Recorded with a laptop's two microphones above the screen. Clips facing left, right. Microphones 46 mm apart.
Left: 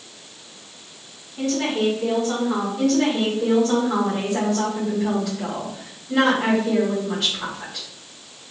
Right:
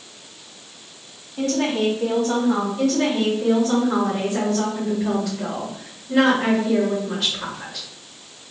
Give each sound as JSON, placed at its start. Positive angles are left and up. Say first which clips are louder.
{"t": 1.4, "sound": "a woman speaking", "louder": "right 1 dB", "side_deg": -40, "distance_m": 2.5}
{"t": 2.8, "sound": "a woman speaking", "louder": "left 1 dB", "side_deg": 5, "distance_m": 2.0}